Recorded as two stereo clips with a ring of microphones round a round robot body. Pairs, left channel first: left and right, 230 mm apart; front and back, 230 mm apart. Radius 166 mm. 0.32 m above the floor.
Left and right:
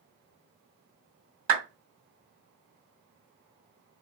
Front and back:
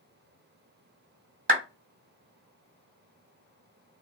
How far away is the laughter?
No laughter in this recording.